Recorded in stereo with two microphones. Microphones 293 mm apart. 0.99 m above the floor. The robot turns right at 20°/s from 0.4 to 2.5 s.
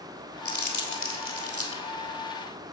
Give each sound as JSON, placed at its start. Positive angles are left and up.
{"t": 0.5, "sound": "crumpling", "side_deg": 65, "distance_m": 2.0}